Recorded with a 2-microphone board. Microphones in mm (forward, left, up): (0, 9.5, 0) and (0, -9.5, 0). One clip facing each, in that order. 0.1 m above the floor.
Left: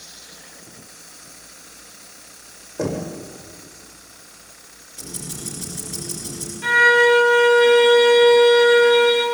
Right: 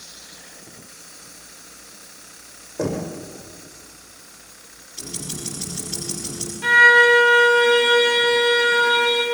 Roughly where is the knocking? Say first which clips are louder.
Even; centre.